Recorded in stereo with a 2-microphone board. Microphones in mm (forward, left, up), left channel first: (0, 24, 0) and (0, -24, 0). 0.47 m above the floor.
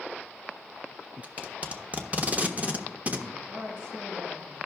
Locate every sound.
1.2 s tape being pulled: 30° right (ahead or behind), 0.7 m
3.3 s a woman speaking: 70° right (ahead or behind), 5 m